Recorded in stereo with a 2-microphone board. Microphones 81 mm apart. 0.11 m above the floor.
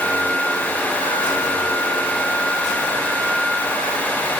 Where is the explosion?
No explosion in this recording.